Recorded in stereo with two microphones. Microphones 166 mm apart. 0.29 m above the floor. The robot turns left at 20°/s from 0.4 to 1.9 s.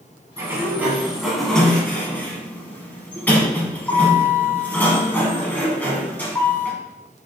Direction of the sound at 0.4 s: 160° right.